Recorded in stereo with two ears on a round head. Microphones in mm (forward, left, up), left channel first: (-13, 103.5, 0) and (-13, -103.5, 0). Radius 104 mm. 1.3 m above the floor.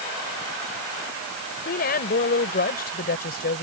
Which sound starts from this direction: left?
A woman speaking, at 1.6 s.